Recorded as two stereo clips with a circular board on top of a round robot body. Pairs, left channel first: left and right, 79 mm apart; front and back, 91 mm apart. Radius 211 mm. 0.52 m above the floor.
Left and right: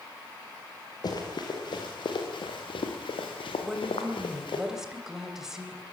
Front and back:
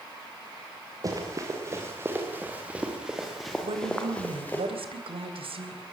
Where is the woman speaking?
175° right, 3.5 m.